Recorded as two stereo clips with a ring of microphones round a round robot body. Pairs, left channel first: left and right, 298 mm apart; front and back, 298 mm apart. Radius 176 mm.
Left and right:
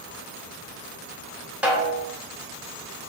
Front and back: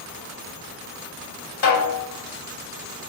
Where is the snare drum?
5° right, 1.7 m.